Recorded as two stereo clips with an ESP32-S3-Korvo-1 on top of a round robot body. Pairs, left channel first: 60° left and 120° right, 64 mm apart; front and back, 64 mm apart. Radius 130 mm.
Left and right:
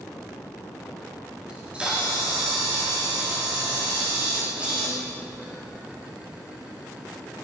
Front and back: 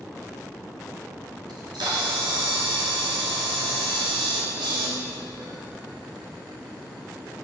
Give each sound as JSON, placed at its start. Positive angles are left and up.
{"t": 1.5, "sound": "a camera shutter", "azimuth_deg": 165, "distance_m": 1.4}